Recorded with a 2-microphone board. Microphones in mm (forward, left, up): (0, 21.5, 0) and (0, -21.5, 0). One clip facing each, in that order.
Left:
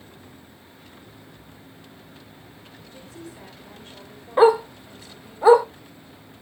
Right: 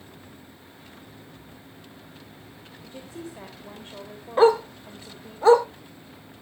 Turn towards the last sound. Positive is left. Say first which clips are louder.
# left 2 dB
turn(degrees=15)  # may be behind; listen again after turning